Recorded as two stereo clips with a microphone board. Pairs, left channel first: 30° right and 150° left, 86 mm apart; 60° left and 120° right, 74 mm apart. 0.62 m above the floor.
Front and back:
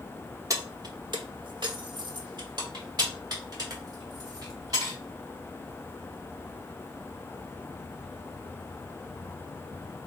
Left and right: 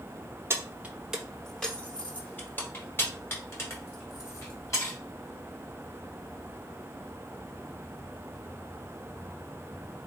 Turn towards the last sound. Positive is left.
turn(degrees=110)